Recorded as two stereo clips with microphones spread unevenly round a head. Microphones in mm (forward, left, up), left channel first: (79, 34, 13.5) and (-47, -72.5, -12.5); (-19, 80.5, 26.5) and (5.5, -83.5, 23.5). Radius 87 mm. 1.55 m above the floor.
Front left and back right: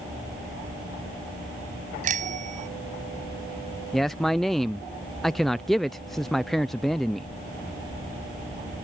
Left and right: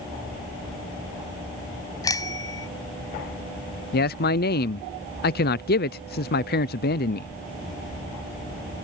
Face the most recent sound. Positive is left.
turn(degrees=130)